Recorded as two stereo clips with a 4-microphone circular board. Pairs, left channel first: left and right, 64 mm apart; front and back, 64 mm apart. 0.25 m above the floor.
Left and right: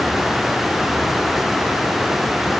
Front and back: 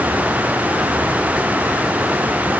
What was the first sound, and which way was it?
Only background noise.